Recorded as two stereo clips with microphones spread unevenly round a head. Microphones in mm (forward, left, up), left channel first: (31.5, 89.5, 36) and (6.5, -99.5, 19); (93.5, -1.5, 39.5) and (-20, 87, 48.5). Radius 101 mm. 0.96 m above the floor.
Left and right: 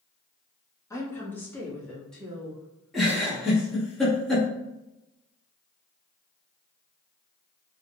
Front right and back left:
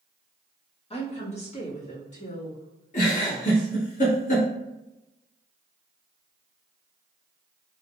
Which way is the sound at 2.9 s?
5° right.